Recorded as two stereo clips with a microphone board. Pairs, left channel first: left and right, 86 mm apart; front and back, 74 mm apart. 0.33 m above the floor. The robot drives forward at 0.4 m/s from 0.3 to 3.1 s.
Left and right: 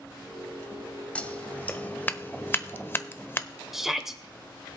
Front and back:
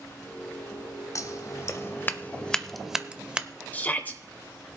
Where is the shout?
10° right, 0.8 m.